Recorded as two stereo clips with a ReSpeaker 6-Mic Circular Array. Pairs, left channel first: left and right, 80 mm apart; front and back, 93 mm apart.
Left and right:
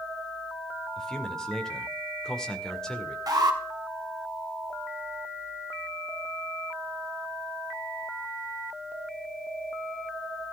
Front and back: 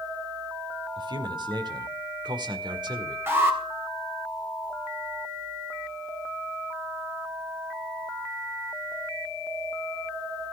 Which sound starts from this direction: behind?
A man speaking, at 1.0 s.